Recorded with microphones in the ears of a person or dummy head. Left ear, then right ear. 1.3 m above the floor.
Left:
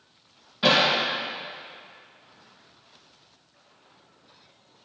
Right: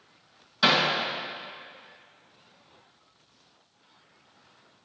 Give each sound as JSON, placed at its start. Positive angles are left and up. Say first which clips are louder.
{"t": 0.6, "sound": "hammering", "louder": "left 2 dB", "side_deg": -50, "distance_m": 3.5}